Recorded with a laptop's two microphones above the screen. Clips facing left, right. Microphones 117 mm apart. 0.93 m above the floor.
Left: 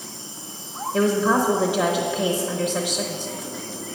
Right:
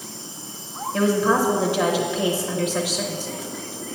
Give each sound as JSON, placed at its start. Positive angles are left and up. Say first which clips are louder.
{"t": 0.9, "sound": "a woman speaking", "louder": "even", "side_deg": 10, "distance_m": 0.7}